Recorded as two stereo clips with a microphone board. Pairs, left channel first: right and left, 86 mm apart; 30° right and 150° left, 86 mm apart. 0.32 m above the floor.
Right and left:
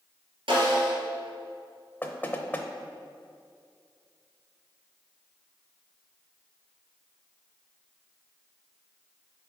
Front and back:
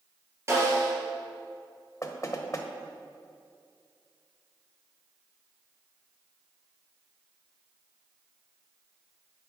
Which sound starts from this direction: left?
A snare drum, at 0.5 s.